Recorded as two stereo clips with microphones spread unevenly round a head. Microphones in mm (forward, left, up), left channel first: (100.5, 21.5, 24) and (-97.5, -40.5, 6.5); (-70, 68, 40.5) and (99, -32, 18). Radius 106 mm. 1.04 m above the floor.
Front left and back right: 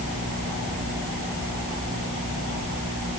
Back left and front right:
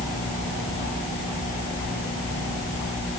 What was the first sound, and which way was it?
Only background noise.